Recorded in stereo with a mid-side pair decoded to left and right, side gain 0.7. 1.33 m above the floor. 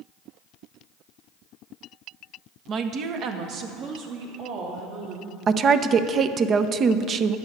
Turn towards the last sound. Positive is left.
turn(degrees=-35)